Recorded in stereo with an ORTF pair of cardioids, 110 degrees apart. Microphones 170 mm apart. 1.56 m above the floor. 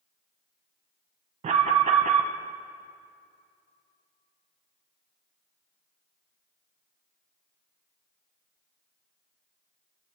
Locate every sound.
1.4 s an alarm: 40° right, 1.1 m